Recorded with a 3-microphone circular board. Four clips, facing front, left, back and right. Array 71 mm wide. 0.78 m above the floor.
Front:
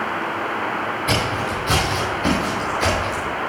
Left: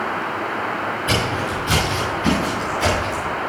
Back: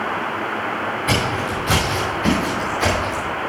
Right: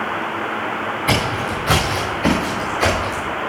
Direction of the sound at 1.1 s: 95° right.